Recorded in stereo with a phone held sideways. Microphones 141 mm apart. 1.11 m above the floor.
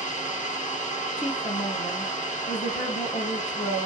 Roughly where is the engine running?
Left.